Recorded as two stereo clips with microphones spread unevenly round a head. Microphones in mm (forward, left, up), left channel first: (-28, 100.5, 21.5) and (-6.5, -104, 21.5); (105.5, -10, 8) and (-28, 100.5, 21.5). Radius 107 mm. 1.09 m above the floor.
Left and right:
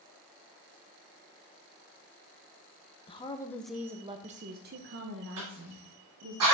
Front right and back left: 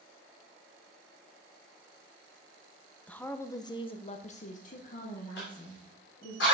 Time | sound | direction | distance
3.1 | a woman speaking | 40° left | 0.9 m
5.4 | a cough | 80° right | 2.5 m